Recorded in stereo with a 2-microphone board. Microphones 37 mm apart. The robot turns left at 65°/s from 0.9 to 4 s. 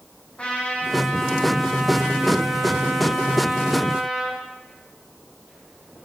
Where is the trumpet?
35° left, 6 m; by 4.4 s 165° right, 6 m.